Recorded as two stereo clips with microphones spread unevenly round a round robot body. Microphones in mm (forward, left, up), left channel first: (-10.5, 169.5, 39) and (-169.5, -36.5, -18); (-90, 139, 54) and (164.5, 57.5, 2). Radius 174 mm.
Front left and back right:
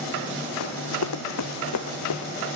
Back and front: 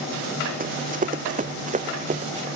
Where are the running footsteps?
40° left; by 2.5 s 45° left.